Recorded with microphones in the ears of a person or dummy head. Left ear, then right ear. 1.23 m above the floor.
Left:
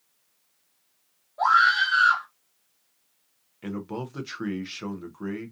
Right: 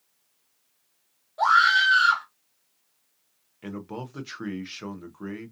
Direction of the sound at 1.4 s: 55° right (ahead or behind).